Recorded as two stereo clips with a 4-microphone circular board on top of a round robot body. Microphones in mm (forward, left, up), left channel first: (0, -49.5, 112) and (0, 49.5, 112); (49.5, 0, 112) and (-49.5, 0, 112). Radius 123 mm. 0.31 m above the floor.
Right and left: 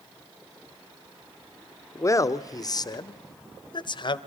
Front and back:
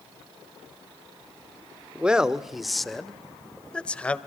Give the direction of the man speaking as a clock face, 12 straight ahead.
4 o'clock.